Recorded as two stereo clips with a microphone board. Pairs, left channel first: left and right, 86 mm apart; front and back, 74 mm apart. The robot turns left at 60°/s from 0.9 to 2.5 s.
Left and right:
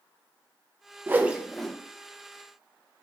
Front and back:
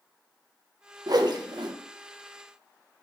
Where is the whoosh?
150° right, 0.8 m; by 1.7 s 170° left, 0.8 m.